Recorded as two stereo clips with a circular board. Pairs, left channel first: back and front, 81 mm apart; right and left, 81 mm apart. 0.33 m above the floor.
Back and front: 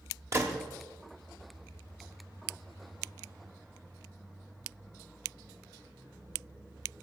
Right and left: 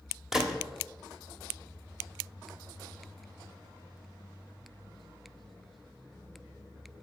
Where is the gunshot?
10° left, 1.2 m.